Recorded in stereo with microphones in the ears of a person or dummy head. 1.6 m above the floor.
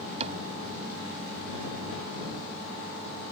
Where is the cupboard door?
40° right (ahead or behind).